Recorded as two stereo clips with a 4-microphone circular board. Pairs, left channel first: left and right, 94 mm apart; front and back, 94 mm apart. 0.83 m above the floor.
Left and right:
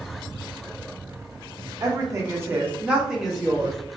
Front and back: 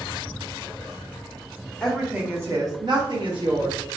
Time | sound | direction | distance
1.8 | a woman speaking | 75° right | 0.7 m